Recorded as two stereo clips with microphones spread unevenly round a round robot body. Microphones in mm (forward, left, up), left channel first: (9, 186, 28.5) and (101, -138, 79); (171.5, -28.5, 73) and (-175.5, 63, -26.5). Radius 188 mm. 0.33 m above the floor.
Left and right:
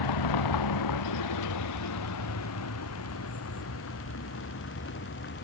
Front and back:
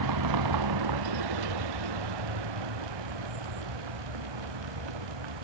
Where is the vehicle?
130° left; by 5.4 s 165° left.